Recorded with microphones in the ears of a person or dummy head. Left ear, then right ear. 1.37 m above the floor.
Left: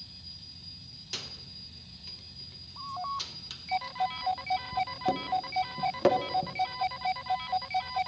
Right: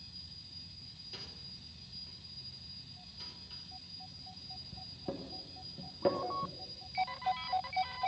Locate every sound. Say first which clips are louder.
1.1 s a microwave: left 10 dB; 50° left (ahead or behind), 1.0 m